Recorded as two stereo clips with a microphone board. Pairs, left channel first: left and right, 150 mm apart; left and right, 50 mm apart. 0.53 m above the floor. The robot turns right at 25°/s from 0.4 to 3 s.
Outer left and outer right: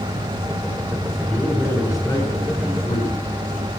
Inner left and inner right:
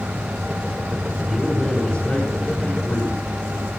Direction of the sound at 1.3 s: 10° left.